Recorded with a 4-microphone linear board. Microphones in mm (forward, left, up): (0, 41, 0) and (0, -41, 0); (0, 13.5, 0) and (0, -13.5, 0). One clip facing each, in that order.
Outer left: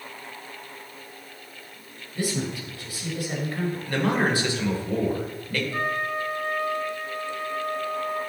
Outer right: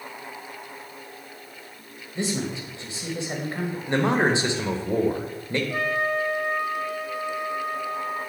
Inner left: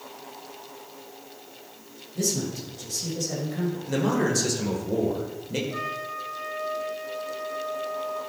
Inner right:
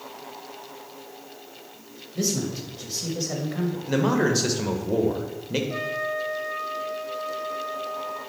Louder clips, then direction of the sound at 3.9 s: Outer right 3 dB, inner right 3 dB; 25° right (ahead or behind).